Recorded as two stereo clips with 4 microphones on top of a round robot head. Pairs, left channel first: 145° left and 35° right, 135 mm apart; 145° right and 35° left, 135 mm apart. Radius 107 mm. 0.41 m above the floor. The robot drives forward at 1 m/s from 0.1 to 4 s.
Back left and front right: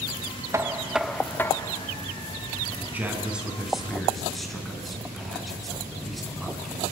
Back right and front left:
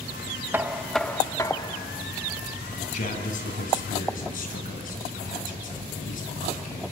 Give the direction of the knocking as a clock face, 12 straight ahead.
12 o'clock.